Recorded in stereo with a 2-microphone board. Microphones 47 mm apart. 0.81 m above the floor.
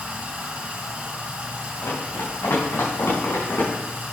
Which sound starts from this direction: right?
Running water, at 0.0 s.